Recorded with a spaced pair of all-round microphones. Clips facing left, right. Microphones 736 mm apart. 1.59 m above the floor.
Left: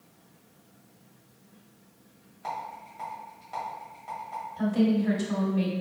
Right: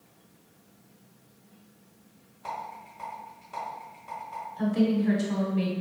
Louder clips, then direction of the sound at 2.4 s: Left 1 dB; 35° left (ahead or behind).